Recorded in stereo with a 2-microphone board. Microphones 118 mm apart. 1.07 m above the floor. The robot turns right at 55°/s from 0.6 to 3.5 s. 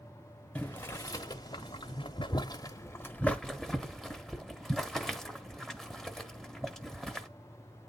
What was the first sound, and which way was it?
Boiling, 10° left (ahead or behind).